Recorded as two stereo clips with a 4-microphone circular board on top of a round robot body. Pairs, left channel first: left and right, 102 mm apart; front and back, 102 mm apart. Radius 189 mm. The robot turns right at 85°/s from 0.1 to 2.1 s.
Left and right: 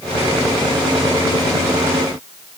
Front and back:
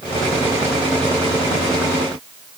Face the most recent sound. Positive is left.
No sound to turn to.